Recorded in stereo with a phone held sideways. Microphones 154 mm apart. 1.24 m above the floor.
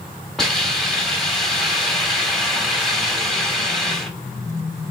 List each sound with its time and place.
0.4 s a hiss: 5° left (ahead or behind), 1.2 m